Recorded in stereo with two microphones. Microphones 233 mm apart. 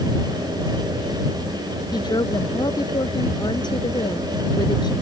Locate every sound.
1.9 s a woman speaking: 20° left (ahead or behind)